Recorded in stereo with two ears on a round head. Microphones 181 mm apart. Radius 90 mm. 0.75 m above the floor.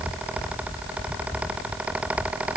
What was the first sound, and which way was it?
Only background noise.